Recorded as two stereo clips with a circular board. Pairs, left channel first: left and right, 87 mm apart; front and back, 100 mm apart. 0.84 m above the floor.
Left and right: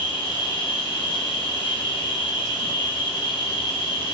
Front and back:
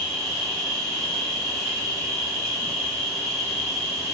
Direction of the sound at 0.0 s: 85° left.